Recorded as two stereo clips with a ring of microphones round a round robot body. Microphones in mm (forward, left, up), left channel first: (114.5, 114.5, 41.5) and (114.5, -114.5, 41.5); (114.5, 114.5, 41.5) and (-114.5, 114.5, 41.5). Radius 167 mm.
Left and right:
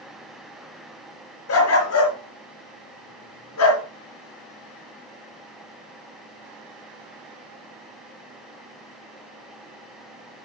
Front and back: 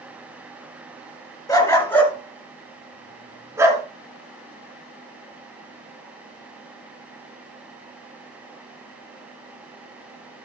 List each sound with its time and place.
1.5 s a dog barking: 75° left, 3.5 m; by 3.8 s 105° left, 3 m